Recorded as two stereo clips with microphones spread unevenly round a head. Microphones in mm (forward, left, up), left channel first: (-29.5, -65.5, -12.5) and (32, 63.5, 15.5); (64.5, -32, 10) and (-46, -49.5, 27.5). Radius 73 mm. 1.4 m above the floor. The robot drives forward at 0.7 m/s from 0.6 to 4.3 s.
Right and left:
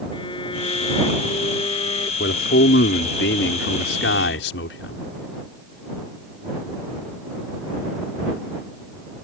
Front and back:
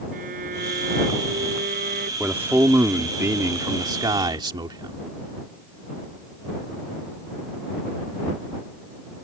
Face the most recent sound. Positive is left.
turn(degrees=-120)